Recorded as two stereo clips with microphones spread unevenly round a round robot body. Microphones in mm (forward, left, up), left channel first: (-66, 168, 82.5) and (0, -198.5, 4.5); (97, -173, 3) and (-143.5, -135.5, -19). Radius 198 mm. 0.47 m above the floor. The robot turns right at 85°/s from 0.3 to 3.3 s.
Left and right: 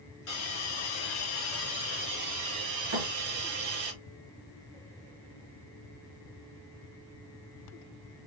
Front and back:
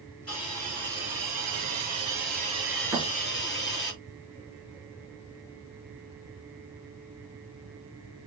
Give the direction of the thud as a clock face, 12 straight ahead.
4 o'clock.